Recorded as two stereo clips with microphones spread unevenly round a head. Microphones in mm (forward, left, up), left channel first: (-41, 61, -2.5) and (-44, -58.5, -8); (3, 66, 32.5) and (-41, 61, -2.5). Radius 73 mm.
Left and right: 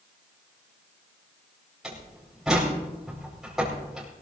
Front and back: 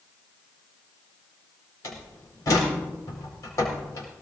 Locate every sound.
1.8 s a door slam: 5° right, 4.5 m